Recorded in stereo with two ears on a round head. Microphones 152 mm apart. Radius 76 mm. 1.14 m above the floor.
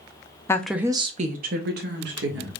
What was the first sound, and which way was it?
A woman speaking, 15° left (ahead or behind).